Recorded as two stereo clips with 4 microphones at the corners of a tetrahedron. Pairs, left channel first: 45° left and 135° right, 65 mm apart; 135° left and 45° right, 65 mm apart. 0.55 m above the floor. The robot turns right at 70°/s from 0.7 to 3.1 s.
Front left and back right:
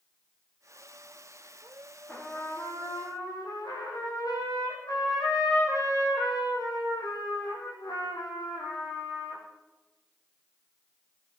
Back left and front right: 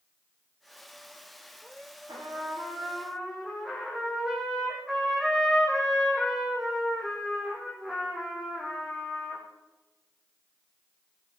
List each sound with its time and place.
2.1 s a trumpet: 25° right, 5.5 m; by 9.4 s 45° left, 5.5 m